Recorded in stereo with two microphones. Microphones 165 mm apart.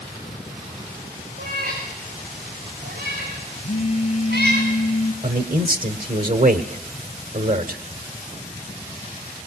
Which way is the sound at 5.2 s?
55° right (ahead or behind).